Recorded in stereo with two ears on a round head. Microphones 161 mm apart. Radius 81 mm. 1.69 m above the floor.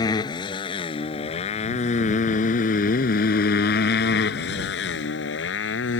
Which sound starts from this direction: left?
A motorcycle, at 0.0 s.